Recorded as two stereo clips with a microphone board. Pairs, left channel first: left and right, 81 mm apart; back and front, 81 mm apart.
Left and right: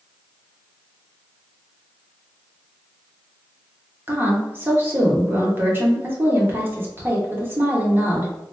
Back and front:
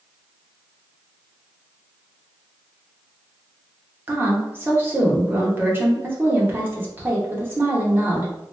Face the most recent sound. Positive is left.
turn(degrees=-45)